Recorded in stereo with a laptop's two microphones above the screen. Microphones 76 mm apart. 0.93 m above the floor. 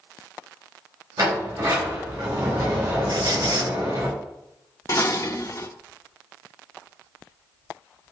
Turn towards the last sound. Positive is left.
turn(degrees=45)  # may be behind; listen again after turning